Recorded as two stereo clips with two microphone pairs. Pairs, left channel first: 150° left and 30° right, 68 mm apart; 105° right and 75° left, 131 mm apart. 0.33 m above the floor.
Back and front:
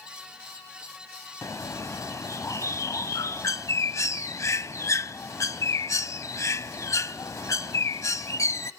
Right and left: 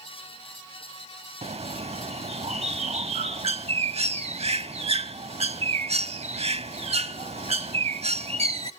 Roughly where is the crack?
No crack in this recording.